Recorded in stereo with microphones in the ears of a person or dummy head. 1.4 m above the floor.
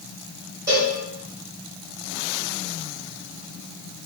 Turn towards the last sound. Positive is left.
turn(degrees=-15)  # may be behind; listen again after turning